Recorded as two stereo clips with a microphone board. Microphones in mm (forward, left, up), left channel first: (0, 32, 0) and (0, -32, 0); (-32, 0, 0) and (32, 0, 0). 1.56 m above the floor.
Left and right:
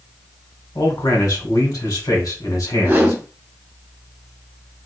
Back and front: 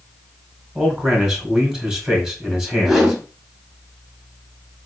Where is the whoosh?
85° right, 1.3 m.